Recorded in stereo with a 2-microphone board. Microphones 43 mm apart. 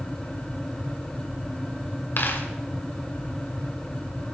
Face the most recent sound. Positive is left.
turn(degrees=60)  # may be behind; listen again after turning